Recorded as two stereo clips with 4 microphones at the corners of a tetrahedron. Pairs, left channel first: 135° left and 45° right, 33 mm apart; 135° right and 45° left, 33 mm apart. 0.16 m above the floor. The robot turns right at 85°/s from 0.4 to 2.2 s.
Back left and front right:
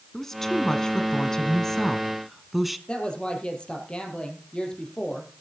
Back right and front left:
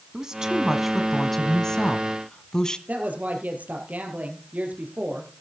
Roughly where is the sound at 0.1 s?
Left.